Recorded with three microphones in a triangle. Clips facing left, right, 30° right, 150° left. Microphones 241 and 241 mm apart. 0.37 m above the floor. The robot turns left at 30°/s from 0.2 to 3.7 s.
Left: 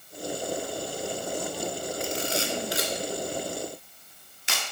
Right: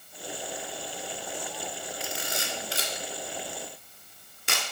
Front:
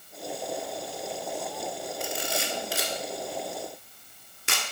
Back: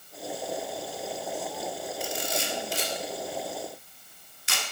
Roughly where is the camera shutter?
Ahead.